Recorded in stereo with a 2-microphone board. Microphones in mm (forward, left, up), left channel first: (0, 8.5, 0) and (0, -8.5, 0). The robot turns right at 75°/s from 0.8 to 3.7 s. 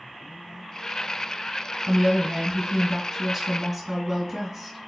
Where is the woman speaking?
115° right, 1.2 m; by 4.9 s 25° left, 1.2 m.